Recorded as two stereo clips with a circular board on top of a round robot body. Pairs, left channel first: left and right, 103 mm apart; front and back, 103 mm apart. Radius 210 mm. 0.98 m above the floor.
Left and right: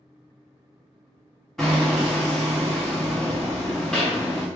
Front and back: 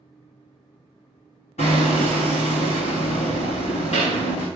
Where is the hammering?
5° left, 0.5 m.